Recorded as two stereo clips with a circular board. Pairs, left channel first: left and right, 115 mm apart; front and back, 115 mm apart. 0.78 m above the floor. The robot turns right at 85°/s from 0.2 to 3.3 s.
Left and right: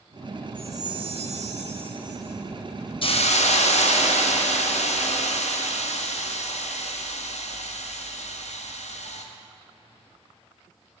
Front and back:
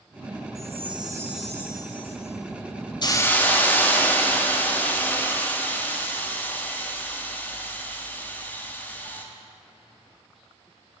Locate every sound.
0.6 s a chime: 165° right, 0.6 m; by 2.4 s 10° right, 0.6 m
3.0 s a hiss: 50° left, 0.5 m; by 9.2 s 75° left, 0.5 m